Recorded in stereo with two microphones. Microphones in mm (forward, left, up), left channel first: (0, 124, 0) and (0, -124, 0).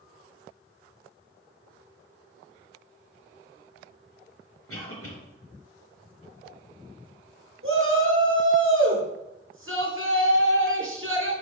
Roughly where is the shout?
Right.